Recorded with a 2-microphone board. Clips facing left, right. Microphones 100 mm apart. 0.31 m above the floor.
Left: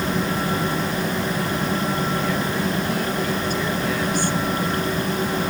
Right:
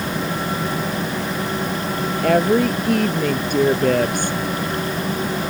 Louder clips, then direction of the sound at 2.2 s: Right 7 dB; 70° right (ahead or behind).